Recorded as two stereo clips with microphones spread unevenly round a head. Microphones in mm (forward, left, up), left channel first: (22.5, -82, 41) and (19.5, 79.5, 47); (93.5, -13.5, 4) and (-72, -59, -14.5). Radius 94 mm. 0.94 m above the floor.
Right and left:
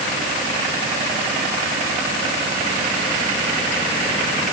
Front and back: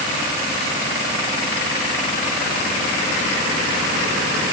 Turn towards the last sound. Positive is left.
No sound to turn to.